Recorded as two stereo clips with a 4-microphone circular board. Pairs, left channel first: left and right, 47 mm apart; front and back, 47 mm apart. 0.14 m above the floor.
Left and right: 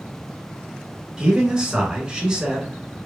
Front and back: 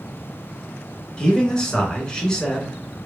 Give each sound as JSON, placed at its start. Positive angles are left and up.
{"t": 1.2, "sound": "a man speaking", "azimuth_deg": -45, "distance_m": 1.1}